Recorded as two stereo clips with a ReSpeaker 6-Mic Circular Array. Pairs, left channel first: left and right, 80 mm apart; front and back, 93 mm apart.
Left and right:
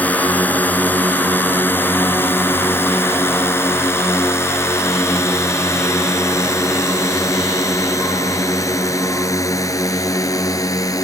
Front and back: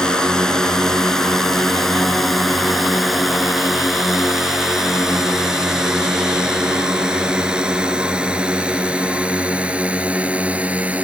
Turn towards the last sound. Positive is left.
turn(degrees=110)